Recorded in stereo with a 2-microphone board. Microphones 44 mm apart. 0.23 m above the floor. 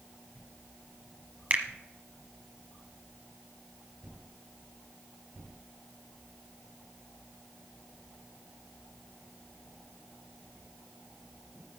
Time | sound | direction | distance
1.5 | a finger snap | 35° right (ahead or behind) | 1.2 m